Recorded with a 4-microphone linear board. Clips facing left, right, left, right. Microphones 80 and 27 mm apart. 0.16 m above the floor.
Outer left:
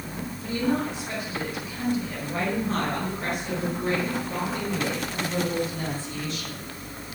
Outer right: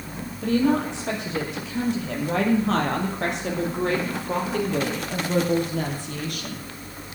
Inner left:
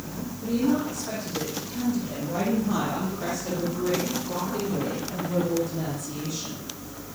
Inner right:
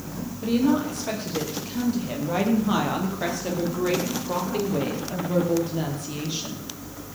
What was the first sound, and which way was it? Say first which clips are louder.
A woman speaking: outer right 5 dB, inner right 3 dB; 70° right (ahead or behind).